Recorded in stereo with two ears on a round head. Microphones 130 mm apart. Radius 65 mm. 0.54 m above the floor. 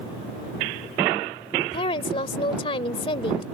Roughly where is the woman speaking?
Left.